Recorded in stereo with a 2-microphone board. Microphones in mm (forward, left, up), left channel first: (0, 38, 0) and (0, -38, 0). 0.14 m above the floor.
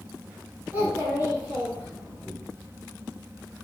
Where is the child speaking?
25° right (ahead or behind), 1.1 m; by 2.3 s 10° right (ahead or behind), 1.1 m.